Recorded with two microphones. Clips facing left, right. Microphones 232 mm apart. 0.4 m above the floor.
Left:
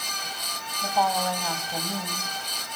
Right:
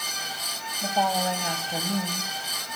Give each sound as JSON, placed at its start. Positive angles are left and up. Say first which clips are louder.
{"t": 0.8, "sound": "a woman speaking", "louder": "even", "side_deg": -20, "distance_m": 2.0}